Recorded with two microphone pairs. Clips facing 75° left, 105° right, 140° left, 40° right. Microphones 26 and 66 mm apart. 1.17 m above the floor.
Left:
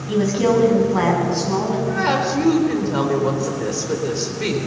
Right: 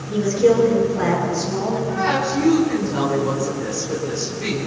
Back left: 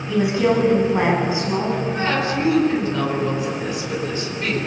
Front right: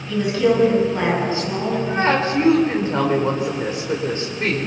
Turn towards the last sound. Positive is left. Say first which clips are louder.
# left 1 dB, front right 2 dB
turn(degrees=10)